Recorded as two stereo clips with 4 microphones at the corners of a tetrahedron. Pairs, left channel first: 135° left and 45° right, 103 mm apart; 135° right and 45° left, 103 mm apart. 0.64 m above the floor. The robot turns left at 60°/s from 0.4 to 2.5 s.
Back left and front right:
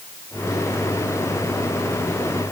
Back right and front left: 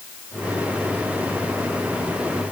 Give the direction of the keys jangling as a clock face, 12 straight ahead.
No keys jangling in this recording.